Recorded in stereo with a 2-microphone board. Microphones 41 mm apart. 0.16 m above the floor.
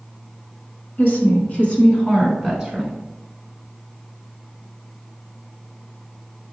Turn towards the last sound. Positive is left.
turn(degrees=-5)  # may be behind; listen again after turning